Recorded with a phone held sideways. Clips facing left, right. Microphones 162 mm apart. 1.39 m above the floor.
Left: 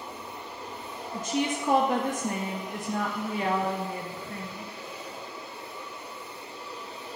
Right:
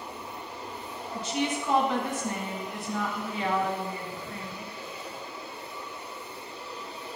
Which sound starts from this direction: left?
A woman speaking, at 1.1 s.